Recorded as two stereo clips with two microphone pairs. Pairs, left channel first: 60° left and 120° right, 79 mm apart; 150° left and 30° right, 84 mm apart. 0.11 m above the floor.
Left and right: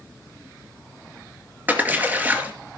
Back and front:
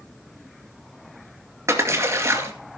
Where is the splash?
65° right, 2.5 m.